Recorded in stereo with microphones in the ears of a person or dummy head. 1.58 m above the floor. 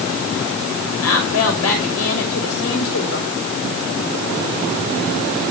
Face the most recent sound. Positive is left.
turn(degrees=85)